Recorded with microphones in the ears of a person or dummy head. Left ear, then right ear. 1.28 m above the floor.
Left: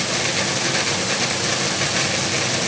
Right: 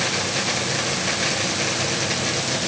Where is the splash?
No splash in this recording.